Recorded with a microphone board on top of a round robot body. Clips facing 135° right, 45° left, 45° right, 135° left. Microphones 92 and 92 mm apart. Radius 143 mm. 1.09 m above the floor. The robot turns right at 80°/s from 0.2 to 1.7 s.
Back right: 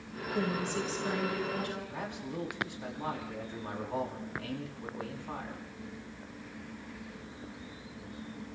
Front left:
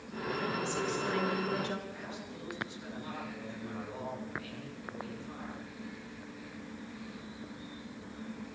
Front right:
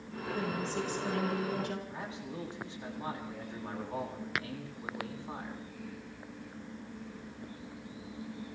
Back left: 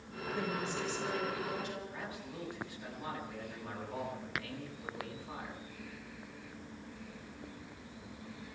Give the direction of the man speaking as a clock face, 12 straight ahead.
4 o'clock.